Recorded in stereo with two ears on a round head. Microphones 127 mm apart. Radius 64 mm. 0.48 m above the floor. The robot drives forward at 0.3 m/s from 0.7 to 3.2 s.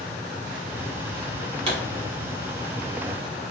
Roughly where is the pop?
Right.